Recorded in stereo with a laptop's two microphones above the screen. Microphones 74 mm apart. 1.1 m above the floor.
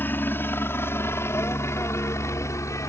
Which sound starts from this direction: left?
A helicopter, at 0.0 s.